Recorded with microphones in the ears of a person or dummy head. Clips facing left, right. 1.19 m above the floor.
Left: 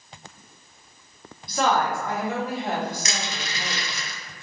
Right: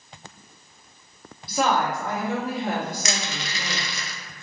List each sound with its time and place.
1.5 s a woman speaking: 5° right (ahead or behind), 1.0 m; by 3.9 s 70° right (ahead or behind), 1.3 m
3.0 s crushing: 60° right (ahead or behind), 0.7 m